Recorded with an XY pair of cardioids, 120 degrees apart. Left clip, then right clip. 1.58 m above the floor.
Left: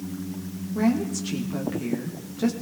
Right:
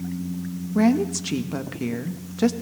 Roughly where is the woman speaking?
Ahead right.